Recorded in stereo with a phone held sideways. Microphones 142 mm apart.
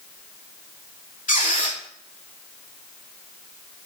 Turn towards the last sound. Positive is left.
turn(degrees=70)  # may be behind; listen again after turning